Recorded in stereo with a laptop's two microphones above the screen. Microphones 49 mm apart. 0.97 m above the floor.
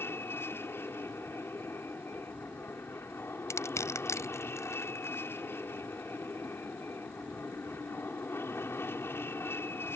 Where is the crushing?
75° left (ahead or behind).